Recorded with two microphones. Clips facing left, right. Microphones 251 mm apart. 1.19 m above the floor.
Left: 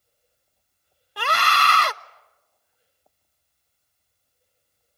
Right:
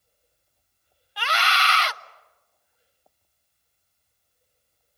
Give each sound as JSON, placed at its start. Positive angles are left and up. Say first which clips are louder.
{"t": 1.2, "sound": "a scream", "louder": "left 3 dB", "side_deg": 55, "distance_m": 0.5}